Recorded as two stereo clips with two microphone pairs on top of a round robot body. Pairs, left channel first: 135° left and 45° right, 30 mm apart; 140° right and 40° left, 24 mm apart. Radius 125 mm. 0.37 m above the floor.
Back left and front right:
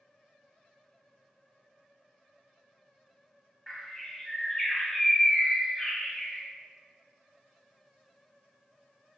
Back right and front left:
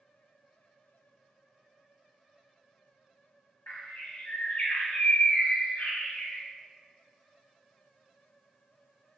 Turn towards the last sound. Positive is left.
turn(degrees=-150)